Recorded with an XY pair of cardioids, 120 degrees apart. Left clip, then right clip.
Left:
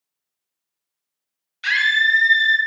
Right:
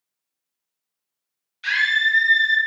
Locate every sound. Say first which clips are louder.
1.6 s a scream: left 2 dB; 30° left, 0.7 m